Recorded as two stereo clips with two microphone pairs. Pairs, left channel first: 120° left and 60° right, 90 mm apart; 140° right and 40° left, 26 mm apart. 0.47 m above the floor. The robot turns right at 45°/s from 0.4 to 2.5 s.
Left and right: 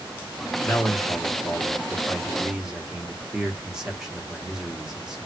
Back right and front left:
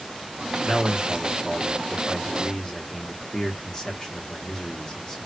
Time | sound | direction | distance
0.6 | a man speaking | 140° left | 0.9 m